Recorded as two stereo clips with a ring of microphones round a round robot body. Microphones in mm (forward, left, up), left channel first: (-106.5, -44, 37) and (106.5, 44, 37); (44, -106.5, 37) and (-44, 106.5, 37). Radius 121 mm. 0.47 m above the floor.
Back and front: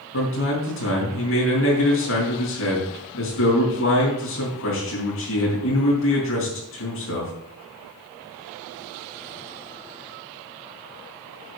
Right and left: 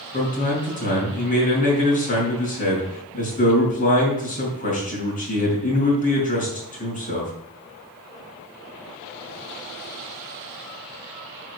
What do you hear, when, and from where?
0.1 s a man speaking: 125° right, 5 m